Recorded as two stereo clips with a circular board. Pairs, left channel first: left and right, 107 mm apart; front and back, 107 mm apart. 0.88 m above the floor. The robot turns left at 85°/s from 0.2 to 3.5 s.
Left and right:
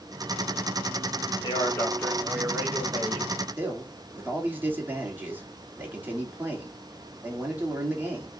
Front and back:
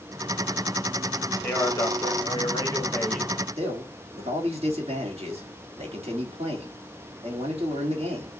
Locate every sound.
1.4 s a man speaking: 65° left, 1.2 m; by 3.4 s 100° right, 1.2 m
3.6 s a man speaking: 165° right, 1.5 m